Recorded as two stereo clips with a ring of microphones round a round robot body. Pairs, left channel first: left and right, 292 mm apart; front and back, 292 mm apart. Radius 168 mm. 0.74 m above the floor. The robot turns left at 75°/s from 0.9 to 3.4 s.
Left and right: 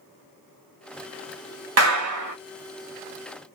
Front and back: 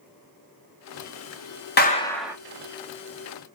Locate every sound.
1.8 s a clap: 55° right, 1.0 m; by 2.4 s 100° right, 1.0 m